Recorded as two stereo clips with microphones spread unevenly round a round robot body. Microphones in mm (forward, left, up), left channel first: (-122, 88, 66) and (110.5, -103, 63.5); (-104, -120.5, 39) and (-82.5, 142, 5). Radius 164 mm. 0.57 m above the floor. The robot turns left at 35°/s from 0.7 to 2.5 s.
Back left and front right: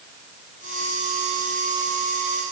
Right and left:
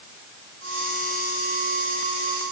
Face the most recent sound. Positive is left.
No sound to turn to.